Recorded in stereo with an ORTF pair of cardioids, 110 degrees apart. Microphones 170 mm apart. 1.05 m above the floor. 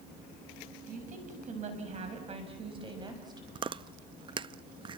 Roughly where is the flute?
I don't hear a flute.